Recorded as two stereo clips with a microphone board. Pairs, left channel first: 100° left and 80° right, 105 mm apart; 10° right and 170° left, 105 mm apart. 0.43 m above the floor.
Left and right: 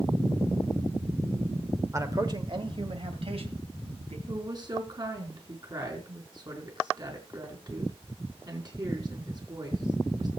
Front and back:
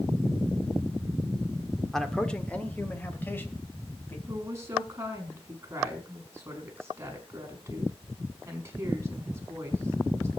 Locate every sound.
1.9 s a man speaking: 95° right, 1.4 m; by 4.2 s 75° right, 3.5 m
4.3 s a woman speaking: 125° right, 5 m